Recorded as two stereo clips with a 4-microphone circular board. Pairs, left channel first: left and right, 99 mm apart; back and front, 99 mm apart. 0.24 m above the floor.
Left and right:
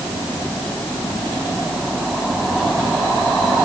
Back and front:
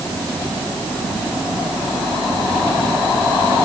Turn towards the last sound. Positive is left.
No sound to turn to.